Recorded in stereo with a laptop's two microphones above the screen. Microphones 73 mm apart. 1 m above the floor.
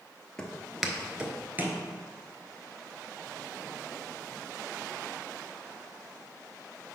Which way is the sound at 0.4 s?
10° left (ahead or behind).